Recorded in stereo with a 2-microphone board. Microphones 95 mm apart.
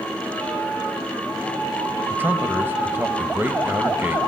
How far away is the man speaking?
About 1.0 m.